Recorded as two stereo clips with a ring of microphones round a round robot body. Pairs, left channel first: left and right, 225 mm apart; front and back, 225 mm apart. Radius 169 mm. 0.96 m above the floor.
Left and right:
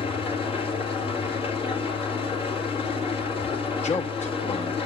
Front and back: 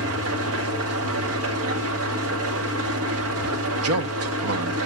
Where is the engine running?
170° right, 2.0 m.